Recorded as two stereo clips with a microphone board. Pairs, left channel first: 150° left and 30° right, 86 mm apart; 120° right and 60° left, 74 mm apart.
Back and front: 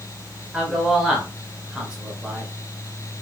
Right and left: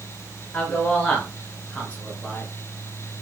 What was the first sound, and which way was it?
A man speaking, 95° right.